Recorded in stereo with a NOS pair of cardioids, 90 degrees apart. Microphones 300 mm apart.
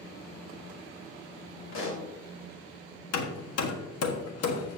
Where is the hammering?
60° left, 1.4 m.